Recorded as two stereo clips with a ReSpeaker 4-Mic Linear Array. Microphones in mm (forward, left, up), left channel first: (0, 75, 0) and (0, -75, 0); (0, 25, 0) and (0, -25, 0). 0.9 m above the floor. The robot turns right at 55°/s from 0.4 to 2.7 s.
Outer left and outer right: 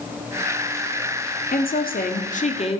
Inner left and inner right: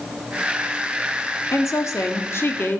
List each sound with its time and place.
1.5 s a woman speaking: 75° left, 1.8 m; by 2.8 s 140° left, 1.8 m